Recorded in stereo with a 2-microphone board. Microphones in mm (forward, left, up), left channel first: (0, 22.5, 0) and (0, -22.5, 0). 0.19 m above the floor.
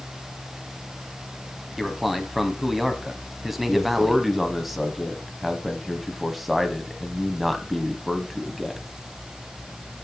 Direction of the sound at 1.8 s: 5° right (ahead or behind).